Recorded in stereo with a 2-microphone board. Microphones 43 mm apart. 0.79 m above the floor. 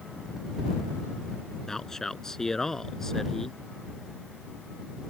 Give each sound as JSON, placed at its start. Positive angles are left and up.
{"t": 1.7, "sound": "a man speaking", "side_deg": 10}